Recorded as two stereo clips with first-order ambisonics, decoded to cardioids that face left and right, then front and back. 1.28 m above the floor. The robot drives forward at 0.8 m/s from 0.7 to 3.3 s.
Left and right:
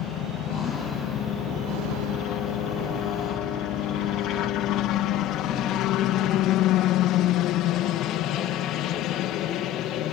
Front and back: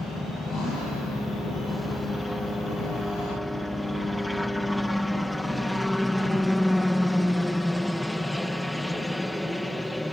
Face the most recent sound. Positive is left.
turn(degrees=90)